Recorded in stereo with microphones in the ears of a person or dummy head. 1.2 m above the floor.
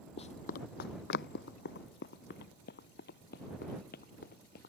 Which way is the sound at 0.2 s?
35° left (ahead or behind).